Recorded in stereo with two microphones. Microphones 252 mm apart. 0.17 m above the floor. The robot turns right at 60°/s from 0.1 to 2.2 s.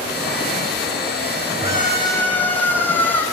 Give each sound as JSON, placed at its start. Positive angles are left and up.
{"t": 1.6, "sound": "a scream", "azimuth_deg": 140, "distance_m": 9.0}